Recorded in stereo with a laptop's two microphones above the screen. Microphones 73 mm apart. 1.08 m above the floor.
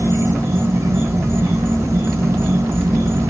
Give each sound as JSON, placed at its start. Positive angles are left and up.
{"t": 0.0, "sound": "an insect", "side_deg": -40, "distance_m": 1.1}